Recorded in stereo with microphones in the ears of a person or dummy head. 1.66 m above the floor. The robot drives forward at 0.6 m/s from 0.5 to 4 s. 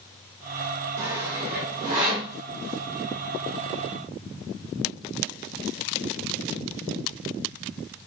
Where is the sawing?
70° right (ahead or behind), 1.0 m; by 2.3 s 35° right (ahead or behind), 1.5 m.